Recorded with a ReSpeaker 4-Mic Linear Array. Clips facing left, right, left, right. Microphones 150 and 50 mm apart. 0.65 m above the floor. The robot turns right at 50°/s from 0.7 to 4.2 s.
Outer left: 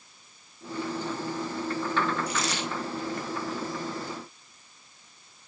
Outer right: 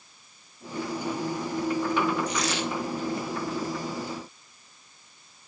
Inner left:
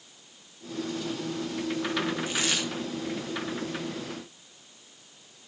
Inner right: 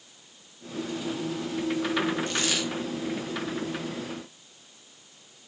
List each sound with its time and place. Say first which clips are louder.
2.3 s a dropped coin: outer right 3 dB, inner right 1 dB; 10° left (ahead or behind), 8.5 m; by 2.6 s 10° right (ahead or behind), 8.5 m